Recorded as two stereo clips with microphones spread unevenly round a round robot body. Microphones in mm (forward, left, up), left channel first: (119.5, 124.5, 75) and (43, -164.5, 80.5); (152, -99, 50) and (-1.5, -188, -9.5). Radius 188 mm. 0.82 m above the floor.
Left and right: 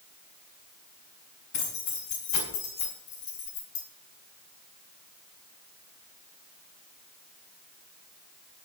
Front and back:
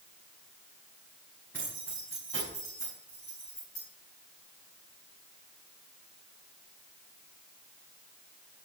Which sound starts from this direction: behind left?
Keys jangling, at 1.5 s.